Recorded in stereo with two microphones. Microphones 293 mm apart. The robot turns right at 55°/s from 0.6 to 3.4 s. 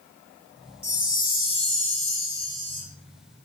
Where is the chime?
55° left, 2 m; by 2.8 s 165° left, 2 m.